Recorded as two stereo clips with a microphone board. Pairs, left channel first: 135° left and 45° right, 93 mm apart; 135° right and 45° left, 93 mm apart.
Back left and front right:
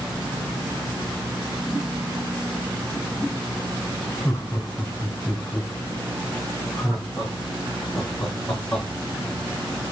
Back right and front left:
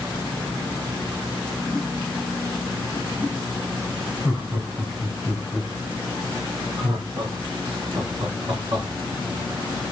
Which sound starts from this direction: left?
Laughter, at 4.2 s.